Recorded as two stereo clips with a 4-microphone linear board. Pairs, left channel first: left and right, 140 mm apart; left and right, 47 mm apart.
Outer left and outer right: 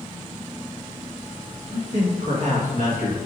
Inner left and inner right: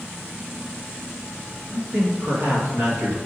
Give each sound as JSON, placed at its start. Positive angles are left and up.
{"t": 1.7, "sound": "a man speaking", "side_deg": -45, "distance_m": 1.7}